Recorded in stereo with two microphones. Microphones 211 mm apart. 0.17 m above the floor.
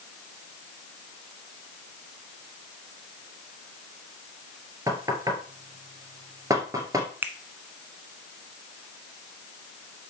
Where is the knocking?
15° right (ahead or behind), 2.5 m.